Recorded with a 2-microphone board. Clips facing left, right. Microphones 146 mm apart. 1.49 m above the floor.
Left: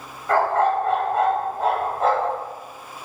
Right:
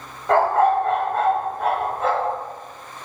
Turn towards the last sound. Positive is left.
turn(degrees=45)  # may be behind; listen again after turning